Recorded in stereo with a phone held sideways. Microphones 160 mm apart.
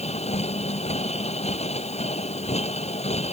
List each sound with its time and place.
0.0 s a machine running: 40° left (ahead or behind)